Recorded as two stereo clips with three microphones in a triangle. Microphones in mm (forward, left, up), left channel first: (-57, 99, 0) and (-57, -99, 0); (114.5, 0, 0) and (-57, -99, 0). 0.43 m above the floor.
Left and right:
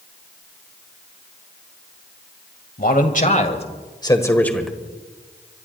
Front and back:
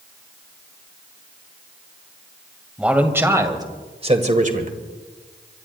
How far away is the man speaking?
About 2.0 m.